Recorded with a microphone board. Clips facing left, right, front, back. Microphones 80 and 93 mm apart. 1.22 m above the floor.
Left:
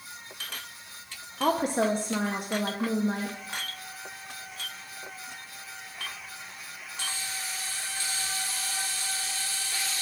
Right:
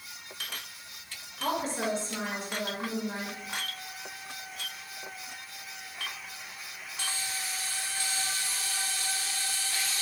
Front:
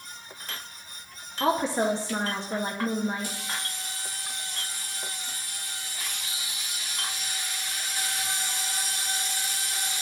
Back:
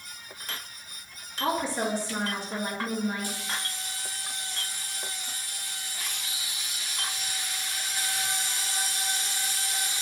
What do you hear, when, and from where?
1.4 s a woman speaking: 65° left, 0.6 m